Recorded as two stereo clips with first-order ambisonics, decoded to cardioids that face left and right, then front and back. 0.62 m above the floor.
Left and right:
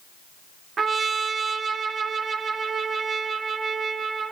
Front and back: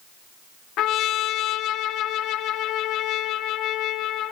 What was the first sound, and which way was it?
A trumpet, 25° right.